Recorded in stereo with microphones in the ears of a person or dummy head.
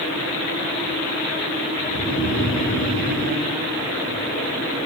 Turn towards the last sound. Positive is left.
turn(degrees=55)  # may be behind; listen again after turning